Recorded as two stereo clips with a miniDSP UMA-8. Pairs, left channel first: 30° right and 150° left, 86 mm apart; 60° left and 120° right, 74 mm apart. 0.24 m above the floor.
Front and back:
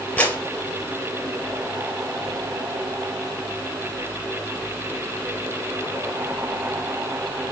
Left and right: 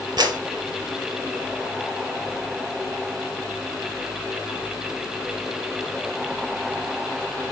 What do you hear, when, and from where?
0.2 s a clap: 100° right, 4.5 m